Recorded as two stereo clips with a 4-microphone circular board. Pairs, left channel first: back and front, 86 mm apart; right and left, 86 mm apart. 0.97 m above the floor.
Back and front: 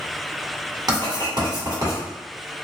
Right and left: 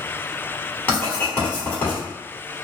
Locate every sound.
0.9 s writing: 25° right, 1.6 m